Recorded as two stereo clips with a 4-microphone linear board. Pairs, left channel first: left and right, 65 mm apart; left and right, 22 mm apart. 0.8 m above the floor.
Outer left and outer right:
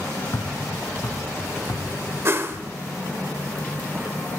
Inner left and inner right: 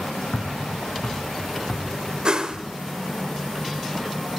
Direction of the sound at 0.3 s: 60° left (ahead or behind).